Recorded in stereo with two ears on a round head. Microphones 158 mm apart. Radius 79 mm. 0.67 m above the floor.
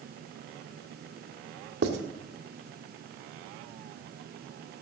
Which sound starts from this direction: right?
Writing, at 1.8 s.